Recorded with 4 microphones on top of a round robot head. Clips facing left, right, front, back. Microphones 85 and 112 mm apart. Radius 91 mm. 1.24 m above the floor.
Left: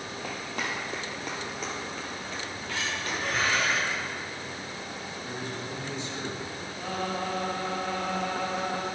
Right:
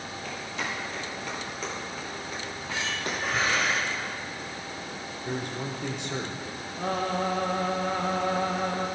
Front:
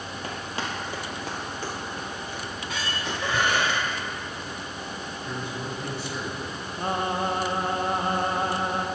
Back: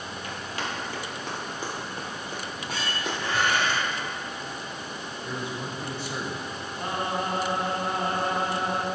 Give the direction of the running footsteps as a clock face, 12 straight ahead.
10 o'clock.